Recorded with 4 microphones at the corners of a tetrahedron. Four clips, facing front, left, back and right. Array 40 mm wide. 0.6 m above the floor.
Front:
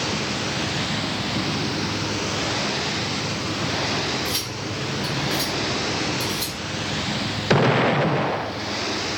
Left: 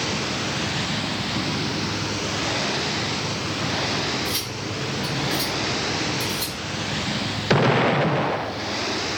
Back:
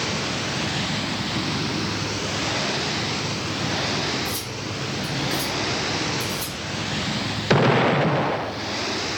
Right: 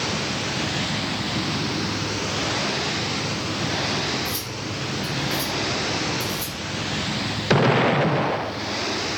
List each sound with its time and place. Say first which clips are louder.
4.2 s cutlery clinking: left 1 dB, front 2 dB; 40° left, 3 m